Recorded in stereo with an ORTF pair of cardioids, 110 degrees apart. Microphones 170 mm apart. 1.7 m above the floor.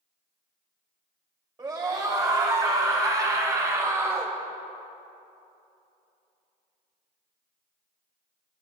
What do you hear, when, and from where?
1.6 s a scream: 25° right, 4.5 m; by 4.4 s 20° right, 2.5 m